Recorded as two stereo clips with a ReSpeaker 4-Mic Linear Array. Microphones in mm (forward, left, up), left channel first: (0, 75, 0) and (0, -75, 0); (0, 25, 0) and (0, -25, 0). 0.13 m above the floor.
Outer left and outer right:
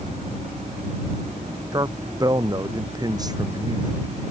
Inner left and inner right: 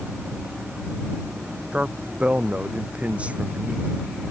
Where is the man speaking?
25° right (ahead or behind).